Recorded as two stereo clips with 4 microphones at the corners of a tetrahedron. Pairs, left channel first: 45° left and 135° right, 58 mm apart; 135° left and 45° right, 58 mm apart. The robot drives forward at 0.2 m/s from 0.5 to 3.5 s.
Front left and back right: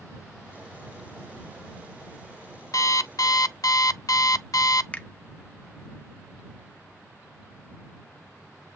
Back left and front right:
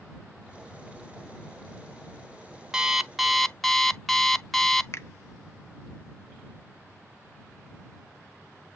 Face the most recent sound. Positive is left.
turn(degrees=110)